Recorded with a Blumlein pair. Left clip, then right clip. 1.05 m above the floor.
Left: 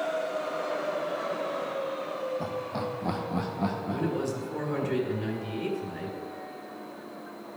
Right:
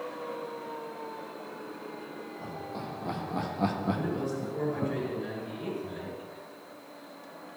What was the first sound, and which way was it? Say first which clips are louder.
Laughter: left 6 dB; 35° left.